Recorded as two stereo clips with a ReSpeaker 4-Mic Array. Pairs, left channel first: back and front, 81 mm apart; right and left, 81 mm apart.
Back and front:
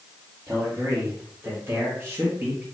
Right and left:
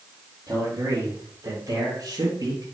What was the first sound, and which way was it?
A man speaking, 50° left.